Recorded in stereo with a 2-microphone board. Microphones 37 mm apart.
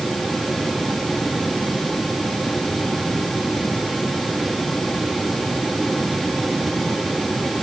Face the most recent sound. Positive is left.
No sound to turn to.